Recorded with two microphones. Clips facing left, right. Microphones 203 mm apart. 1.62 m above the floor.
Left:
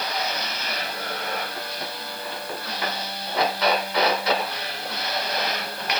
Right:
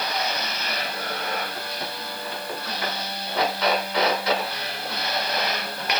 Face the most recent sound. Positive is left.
No sound to turn to.